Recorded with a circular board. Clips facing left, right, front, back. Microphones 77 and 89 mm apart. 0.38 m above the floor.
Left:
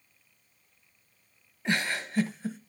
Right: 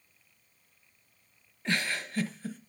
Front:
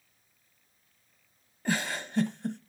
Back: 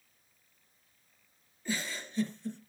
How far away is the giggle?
About 1.0 m.